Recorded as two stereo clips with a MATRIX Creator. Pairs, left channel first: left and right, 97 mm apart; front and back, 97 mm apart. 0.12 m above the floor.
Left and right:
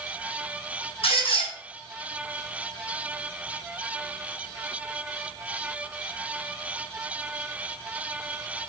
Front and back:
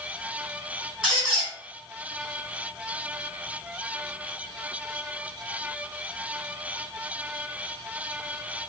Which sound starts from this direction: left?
A squeak, at 1.0 s.